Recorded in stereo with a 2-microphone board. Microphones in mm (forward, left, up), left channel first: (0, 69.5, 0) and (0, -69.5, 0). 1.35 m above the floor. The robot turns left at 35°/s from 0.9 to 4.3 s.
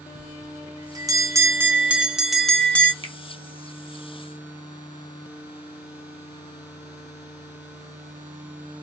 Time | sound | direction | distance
0.1 | a bell | 130° right | 0.5 m
3.0 | a finger snap | 45° right (ahead or behind) | 0.7 m